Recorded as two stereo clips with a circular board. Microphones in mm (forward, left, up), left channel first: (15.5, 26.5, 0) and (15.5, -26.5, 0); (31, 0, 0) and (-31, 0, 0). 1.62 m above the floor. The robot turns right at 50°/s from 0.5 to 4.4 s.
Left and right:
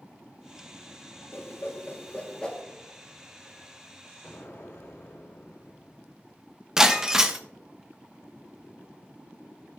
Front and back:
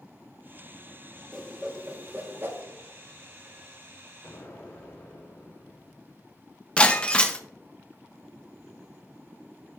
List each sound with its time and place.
1.3 s a whoosh: 95° left, 1.4 m; by 2.6 s 160° left, 1.4 m
4.2 s an explosion: 55° left, 4 m; by 6.3 s 65° left, 4 m
6.8 s breaking glass: 30° right, 0.8 m